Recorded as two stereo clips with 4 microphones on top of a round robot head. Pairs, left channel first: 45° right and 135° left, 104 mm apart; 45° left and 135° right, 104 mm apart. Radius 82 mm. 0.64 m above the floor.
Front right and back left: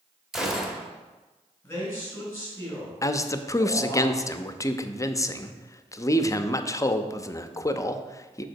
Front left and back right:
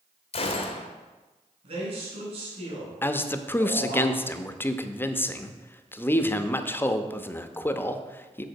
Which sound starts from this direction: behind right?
A man speaking, at 1.6 s.